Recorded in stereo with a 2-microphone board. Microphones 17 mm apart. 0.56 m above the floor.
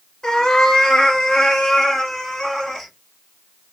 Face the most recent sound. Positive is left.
turn(degrees=40)  # may be behind; listen again after turning